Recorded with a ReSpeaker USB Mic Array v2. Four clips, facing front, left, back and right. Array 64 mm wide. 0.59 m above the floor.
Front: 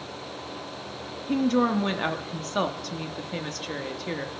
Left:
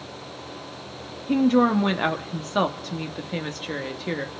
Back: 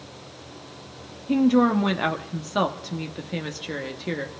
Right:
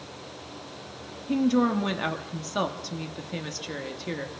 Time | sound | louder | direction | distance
1.3 | a woman speaking | left 4 dB, back 4 dB | 115° left | 0.9 m